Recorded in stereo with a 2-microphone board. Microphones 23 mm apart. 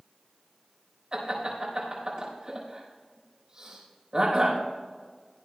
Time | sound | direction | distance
1.1 | laughter | 45° right (ahead or behind) | 4 m